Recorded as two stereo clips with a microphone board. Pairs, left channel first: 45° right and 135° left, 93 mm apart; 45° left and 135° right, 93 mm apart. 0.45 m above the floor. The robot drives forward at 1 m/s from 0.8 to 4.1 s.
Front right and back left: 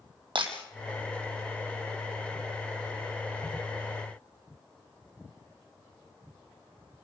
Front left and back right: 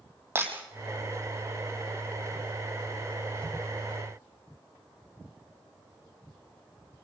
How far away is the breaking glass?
About 4.5 m.